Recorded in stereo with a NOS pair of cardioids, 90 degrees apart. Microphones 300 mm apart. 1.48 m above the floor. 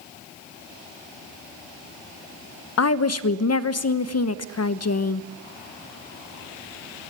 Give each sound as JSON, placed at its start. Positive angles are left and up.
{"t": 2.8, "sound": "a woman speaking", "azimuth_deg": 55, "distance_m": 1.2}